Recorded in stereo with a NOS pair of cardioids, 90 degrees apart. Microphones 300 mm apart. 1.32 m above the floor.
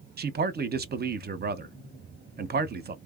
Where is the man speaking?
35° right, 0.7 m.